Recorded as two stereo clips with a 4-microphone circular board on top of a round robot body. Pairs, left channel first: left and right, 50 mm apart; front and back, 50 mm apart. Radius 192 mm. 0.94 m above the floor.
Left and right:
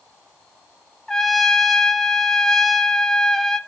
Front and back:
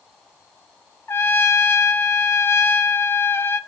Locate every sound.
1.1 s a trumpet: 10° left, 1.3 m